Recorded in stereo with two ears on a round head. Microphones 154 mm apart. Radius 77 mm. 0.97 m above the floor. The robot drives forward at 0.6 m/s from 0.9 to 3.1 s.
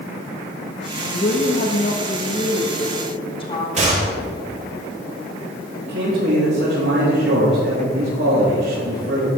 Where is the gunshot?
45° right (ahead or behind), 4 m.